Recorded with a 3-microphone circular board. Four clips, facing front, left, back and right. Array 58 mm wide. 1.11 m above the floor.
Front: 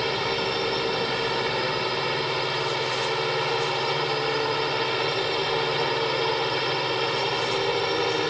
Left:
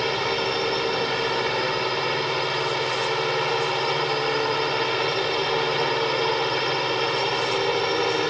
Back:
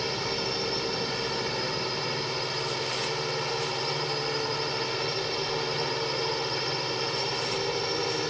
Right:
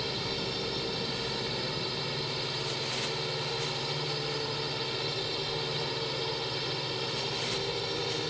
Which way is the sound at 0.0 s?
65° left.